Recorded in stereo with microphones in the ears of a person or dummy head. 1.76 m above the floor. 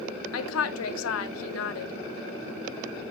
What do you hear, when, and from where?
0.3 s a woman speaking: 85° left, 0.6 m